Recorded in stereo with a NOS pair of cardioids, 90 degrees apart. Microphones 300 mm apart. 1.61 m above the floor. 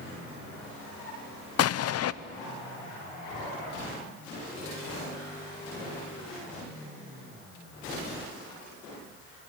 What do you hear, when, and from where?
1.6 s an explosion: 55° left, 0.7 m